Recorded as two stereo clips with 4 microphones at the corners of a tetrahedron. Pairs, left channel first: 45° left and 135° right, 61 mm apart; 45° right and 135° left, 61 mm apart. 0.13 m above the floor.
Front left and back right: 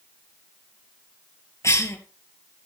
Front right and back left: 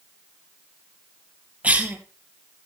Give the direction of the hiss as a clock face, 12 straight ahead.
No hiss in this recording.